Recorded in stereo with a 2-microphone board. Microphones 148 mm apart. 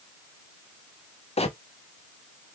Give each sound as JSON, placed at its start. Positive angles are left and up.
{"t": 1.4, "sound": "a bird", "side_deg": 45, "distance_m": 0.6}